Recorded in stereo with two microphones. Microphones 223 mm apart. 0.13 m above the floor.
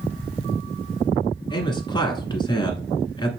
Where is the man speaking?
20° left (ahead or behind), 1.5 m.